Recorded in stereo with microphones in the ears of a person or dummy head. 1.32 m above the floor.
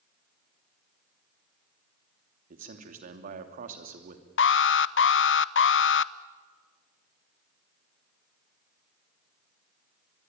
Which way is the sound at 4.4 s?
60° left (ahead or behind).